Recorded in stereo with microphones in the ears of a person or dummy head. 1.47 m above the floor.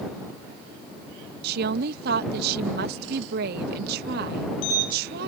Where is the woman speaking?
60° right (ahead or behind).